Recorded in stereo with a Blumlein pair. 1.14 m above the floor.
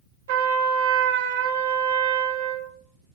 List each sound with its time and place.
0.3 s a trumpet: 50° right, 1.2 m